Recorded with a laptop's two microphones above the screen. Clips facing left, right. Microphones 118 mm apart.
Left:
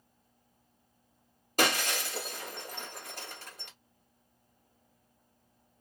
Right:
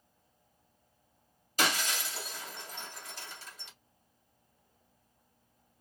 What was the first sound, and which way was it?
Breaking glass, 55° left (ahead or behind).